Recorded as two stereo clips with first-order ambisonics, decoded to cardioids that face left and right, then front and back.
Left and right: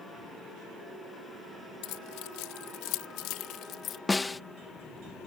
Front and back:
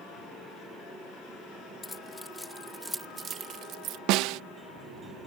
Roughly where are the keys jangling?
Left.